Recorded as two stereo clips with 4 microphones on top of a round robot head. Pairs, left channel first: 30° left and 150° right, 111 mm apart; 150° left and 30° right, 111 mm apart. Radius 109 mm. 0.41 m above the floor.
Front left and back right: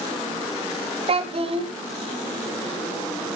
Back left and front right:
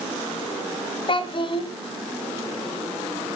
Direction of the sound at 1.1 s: 175° right.